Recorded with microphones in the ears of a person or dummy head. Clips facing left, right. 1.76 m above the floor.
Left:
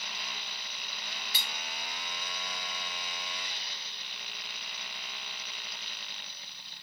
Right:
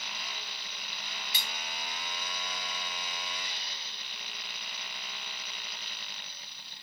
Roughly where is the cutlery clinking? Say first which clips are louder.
Even; centre.